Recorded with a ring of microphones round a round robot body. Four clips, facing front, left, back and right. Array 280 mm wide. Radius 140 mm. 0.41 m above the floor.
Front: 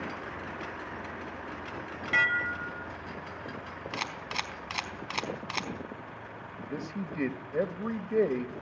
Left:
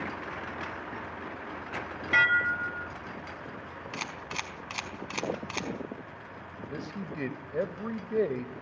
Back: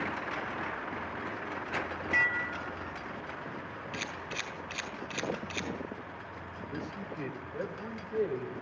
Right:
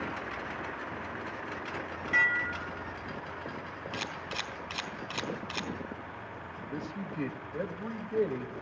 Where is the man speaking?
35° left, 2.0 m.